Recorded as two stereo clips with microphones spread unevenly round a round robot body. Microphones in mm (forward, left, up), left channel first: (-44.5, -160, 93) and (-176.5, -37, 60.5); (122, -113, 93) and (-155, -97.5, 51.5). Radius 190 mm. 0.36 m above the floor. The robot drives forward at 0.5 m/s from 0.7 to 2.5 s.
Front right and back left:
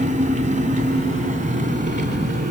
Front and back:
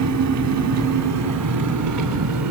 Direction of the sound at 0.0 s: 175° right.